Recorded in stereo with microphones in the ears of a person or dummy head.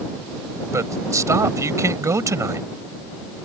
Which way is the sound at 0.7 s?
15° right (ahead or behind).